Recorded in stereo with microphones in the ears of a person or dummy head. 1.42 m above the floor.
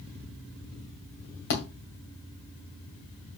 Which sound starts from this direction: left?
A thud, at 1.5 s.